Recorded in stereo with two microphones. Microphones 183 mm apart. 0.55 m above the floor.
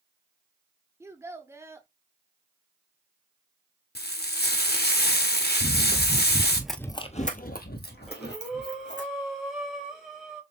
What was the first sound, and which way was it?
A child speaking, 15° right (ahead or behind).